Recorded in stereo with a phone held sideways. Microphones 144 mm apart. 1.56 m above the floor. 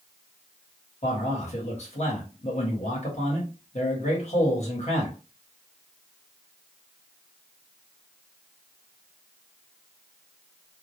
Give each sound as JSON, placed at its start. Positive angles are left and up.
{"t": 1.0, "sound": "a man speaking", "side_deg": 50, "distance_m": 1.2}